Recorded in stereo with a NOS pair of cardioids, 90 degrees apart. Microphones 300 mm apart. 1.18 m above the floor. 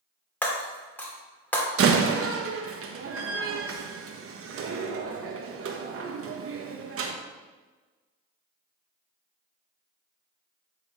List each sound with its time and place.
0.4 s breaking glass: 5° left, 1.9 m
1.8 s a door slam: 50° right, 1.0 m